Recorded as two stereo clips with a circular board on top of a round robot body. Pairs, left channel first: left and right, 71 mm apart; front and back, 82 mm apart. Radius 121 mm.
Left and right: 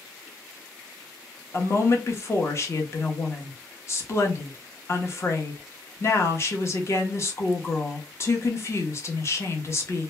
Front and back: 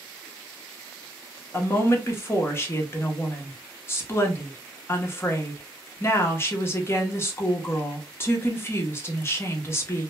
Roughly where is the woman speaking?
Ahead left.